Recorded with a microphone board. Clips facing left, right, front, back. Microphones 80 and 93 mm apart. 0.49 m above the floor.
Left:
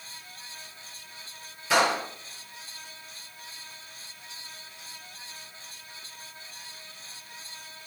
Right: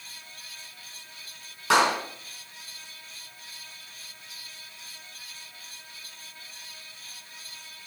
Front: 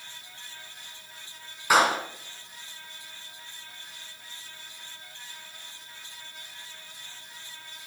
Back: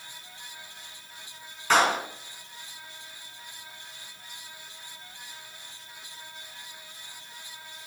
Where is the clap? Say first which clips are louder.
Right 2 dB, front 1 dB; 80° right, 4 m.